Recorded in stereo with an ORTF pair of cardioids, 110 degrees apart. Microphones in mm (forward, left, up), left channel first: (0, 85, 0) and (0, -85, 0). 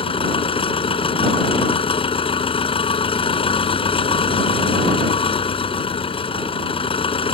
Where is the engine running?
30° left.